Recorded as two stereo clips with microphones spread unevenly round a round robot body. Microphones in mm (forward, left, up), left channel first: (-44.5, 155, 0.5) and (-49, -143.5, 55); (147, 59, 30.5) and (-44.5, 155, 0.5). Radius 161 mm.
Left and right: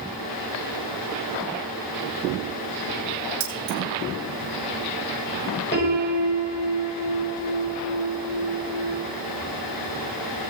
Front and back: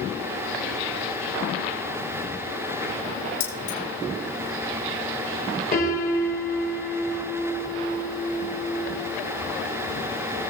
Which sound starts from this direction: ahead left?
A piano, at 5.7 s.